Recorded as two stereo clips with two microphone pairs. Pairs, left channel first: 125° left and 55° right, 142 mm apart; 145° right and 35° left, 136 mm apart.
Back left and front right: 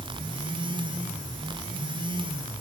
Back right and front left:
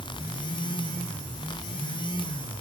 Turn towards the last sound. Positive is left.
No sound to turn to.